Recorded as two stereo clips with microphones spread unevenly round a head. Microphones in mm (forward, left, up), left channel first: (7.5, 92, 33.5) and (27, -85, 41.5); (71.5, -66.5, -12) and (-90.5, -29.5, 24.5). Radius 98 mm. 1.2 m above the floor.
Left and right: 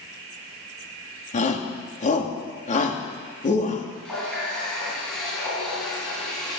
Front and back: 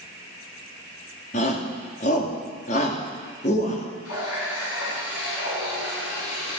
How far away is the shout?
About 2.5 m.